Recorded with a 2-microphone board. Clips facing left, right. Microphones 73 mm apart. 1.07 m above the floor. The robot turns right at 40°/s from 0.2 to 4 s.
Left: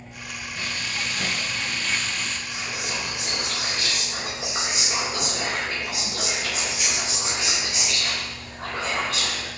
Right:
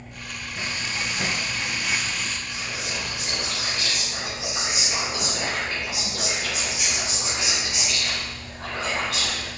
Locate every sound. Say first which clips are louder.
0.6 s frying: right 1 dB; 20° right (ahead or behind), 0.6 m; by 2.4 s 5° right (ahead or behind), 0.6 m
2.5 s whispering: left 1 dB; 80° left, 3 m; by 9.5 s 140° left, 3 m